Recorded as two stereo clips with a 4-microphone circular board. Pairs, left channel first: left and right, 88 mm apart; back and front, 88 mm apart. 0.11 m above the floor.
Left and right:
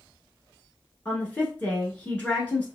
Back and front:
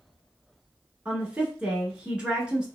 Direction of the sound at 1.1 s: 55° left.